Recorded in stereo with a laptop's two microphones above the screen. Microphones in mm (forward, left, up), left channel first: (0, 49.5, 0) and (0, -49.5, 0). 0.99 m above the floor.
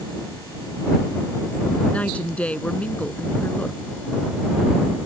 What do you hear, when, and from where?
1.9 s a woman speaking: 15° left (ahead or behind)